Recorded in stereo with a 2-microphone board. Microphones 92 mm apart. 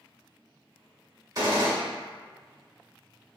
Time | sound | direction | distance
1.4 | a gunshot | 40° right (ahead or behind) | 1.1 m